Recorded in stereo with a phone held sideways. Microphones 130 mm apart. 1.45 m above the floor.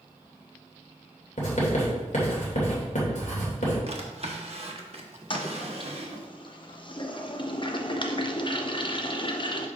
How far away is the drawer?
About 1.0 m.